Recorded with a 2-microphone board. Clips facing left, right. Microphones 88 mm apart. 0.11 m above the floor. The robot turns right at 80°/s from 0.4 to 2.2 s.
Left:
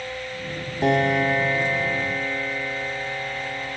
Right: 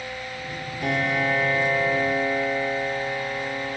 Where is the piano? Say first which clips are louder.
Left 5 dB; 100° left, 0.5 m; by 3.8 s 150° right, 0.5 m.